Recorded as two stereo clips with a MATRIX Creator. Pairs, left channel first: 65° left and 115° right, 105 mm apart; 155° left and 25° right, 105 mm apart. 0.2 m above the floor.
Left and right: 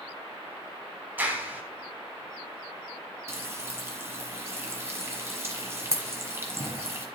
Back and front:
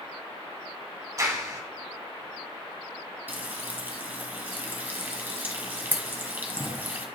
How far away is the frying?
About 1.6 m.